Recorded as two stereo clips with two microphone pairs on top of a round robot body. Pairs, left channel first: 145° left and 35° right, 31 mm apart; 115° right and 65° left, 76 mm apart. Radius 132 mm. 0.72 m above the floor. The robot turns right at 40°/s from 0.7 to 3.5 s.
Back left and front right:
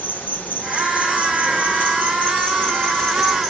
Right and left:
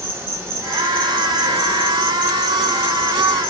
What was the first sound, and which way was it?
An insect, 125° left.